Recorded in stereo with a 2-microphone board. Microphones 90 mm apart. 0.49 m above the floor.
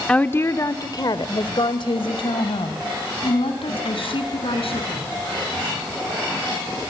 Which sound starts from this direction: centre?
A woman speaking, at 0.1 s.